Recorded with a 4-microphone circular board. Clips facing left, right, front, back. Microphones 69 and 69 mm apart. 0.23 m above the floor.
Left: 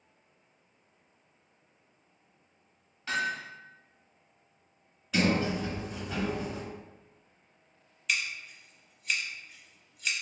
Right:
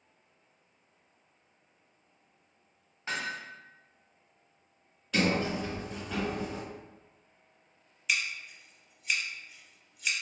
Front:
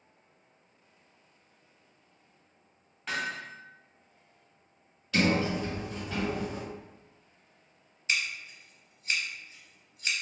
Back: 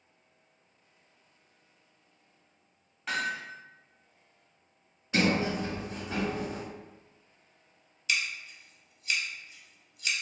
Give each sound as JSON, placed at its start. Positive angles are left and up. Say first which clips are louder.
{"t": 3.1, "sound": "hammering", "louder": "left 4 dB, back 2 dB", "azimuth_deg": -95, "distance_m": 1.0}
{"t": 5.1, "sound": "a sliding door", "louder": "left 1 dB, even", "azimuth_deg": 175, "distance_m": 1.6}
{"t": 8.1, "sound": "scissors", "louder": "even, even", "azimuth_deg": -5, "distance_m": 0.7}